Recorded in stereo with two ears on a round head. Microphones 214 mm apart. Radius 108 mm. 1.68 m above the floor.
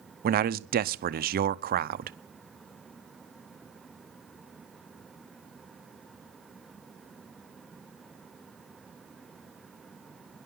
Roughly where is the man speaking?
Right.